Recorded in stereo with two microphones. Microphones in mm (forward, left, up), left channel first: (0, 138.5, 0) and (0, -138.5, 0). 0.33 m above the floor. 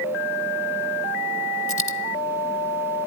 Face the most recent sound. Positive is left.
turn(degrees=50)  # may be behind; listen again after turning